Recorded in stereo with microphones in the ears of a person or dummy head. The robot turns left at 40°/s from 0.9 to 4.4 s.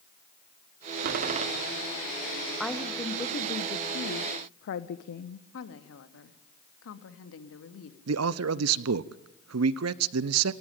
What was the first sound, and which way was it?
A door slam, 55° right (ahead or behind).